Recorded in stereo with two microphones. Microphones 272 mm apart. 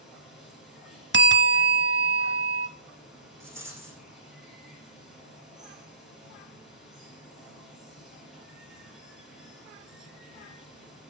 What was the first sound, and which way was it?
Running water, centre (ahead or behind).